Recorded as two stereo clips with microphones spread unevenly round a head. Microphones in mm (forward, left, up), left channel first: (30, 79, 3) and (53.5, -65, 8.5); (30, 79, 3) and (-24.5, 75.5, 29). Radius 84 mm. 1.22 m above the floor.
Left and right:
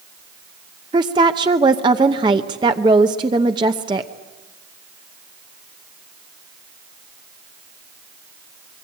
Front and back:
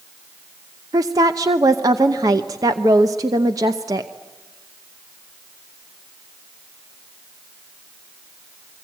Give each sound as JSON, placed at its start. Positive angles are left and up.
{"t": 0.9, "sound": "a woman speaking", "azimuth_deg": -145, "distance_m": 0.8}